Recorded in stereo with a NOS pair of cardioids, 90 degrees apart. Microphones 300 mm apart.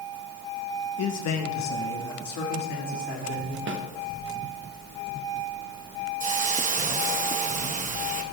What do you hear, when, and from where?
1.0 s a man speaking: 55° left, 1.0 m; by 3.6 s 75° left, 3 m
3.7 s a snare drum: 40° right, 1.1 m
6.2 s a hiss: 25° right, 0.9 m